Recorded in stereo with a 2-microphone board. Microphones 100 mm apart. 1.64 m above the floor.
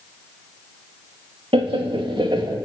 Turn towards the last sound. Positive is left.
turn(degrees=-45)  # may be behind; listen again after turning